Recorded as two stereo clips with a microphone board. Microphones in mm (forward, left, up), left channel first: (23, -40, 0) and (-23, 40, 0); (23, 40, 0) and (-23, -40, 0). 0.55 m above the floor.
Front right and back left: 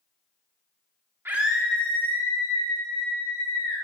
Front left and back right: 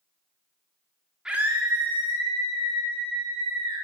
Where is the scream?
165° left, 0.9 m; by 3.8 s 105° right, 3.5 m.